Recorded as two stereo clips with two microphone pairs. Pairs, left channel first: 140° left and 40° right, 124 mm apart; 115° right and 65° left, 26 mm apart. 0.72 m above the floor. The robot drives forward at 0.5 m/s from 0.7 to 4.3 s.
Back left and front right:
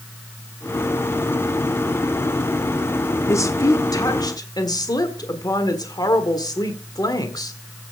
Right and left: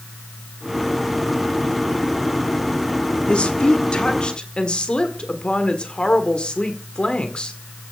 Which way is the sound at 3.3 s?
155° right.